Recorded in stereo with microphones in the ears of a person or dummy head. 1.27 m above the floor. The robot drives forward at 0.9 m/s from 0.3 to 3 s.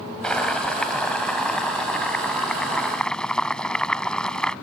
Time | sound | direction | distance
0.2 | boiling | centre (ahead or behind) | ?